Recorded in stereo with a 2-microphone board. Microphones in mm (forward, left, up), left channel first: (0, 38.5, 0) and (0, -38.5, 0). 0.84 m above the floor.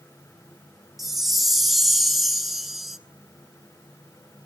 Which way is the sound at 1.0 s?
Centre (ahead or behind).